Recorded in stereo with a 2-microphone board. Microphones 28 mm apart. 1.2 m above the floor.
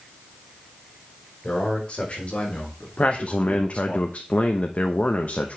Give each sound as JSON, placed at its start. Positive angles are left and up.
{"t": 1.4, "sound": "a man speaking", "side_deg": 40, "distance_m": 4.5}
{"t": 3.0, "sound": "a man speaking", "side_deg": 55, "distance_m": 0.9}